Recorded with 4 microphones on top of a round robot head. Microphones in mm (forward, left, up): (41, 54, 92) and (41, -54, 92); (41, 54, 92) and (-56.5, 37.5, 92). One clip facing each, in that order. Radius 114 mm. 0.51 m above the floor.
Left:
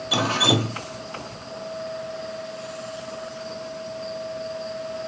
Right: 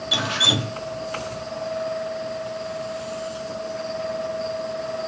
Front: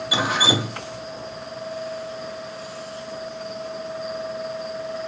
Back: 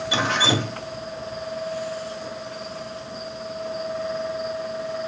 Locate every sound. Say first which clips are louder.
0.1 s dripping: left 5 dB, even; 90° left, 0.9 m